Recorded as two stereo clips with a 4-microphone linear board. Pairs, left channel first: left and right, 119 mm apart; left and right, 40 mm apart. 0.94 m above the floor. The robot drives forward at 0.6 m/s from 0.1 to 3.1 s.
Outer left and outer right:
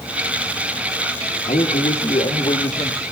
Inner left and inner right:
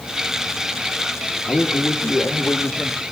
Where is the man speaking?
70° left (ahead or behind), 1.4 m; by 3.0 s 50° left (ahead or behind), 1.7 m.